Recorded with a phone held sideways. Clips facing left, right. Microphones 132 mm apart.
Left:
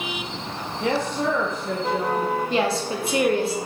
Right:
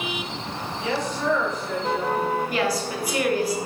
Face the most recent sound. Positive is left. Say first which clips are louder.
# left 2 dB
turn(degrees=25)  # may be behind; listen again after turning